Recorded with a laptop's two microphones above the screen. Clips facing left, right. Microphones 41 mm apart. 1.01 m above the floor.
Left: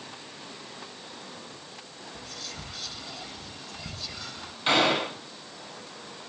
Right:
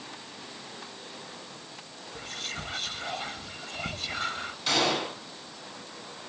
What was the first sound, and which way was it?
Whispering, 45° right (ahead or behind).